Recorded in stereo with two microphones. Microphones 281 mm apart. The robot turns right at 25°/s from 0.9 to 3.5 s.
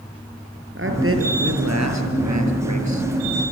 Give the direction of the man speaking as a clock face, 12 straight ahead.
4 o'clock.